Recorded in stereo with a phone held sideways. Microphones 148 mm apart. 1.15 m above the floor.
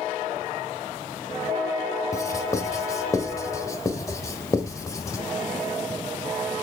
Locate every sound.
2.1 s writing: 20° left (ahead or behind), 1.3 m